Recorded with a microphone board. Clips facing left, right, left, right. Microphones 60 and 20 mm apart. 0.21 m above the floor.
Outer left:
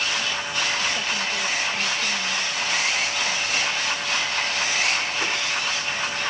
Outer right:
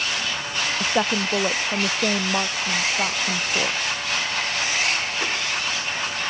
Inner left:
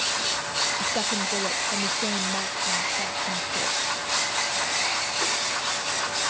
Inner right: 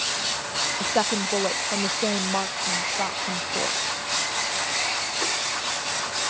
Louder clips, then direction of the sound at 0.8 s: Outer right 4 dB, inner right 2 dB; 55° right (ahead or behind).